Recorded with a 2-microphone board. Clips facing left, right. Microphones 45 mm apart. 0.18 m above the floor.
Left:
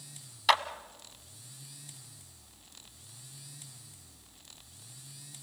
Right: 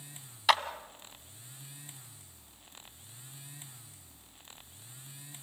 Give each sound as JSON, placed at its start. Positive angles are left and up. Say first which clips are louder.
{"t": 0.5, "sound": "a clap", "louder": "even", "side_deg": 0, "distance_m": 0.9}